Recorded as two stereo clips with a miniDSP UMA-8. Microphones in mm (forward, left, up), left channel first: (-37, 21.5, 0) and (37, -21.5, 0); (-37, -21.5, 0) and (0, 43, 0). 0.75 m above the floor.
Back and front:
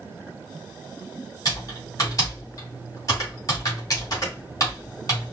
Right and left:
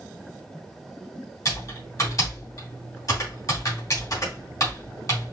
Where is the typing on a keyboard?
160° right, 2.5 m.